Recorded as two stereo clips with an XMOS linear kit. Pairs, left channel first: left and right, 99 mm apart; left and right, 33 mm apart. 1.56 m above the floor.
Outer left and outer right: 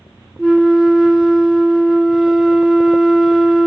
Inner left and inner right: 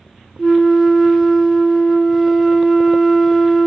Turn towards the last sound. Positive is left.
turn(degrees=-5)  # may be behind; listen again after turning